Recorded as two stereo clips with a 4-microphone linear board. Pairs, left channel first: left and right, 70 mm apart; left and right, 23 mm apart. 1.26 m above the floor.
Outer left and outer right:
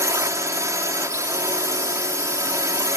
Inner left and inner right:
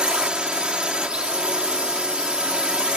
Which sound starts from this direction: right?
A drone, at 0.0 s.